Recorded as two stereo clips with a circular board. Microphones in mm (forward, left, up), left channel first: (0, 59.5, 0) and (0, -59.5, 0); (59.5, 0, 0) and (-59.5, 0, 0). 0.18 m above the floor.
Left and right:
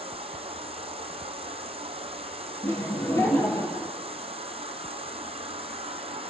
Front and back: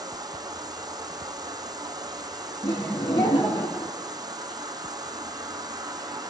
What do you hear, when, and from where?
0.0 s an insect: 125° right, 0.8 m
2.6 s laughter: 35° left, 2.0 m